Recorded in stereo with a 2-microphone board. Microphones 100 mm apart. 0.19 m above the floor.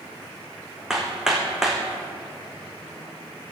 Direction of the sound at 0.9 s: 5° right (ahead or behind).